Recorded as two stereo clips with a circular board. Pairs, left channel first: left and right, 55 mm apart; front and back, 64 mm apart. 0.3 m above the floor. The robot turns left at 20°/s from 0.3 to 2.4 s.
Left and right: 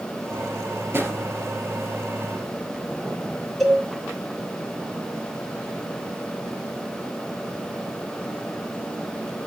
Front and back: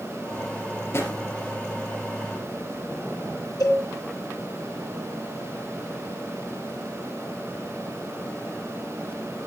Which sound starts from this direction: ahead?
A cowbell, at 3.6 s.